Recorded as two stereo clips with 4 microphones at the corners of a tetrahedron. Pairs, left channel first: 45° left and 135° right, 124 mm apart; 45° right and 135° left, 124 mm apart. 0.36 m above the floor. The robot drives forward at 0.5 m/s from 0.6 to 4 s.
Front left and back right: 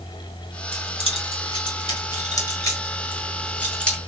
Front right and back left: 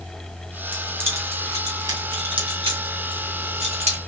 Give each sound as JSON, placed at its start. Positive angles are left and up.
{"t": 0.7, "sound": "keys jangling", "azimuth_deg": 60, "distance_m": 1.6}